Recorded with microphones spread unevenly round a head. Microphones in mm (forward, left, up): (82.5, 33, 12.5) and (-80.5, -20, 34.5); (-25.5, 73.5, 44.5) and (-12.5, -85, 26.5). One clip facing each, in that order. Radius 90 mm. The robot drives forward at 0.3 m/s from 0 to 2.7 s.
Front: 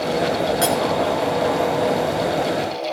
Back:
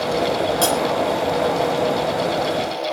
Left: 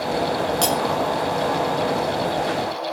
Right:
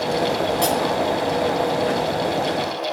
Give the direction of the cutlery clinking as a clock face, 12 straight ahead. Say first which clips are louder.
Even, right 2 dB; 8 o'clock.